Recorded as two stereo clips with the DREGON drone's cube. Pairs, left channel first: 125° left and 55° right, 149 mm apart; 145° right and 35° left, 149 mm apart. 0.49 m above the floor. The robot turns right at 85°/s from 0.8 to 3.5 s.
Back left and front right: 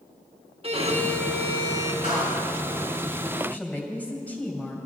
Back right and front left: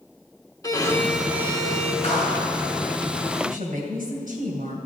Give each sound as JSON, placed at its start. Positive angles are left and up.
{"t": 0.6, "sound": "a violin", "azimuth_deg": -85, "distance_m": 1.0}
{"t": 2.0, "sound": "a clap", "azimuth_deg": -100, "distance_m": 5.0}
{"t": 3.4, "sound": "a woman speaking", "azimuth_deg": 40, "distance_m": 2.5}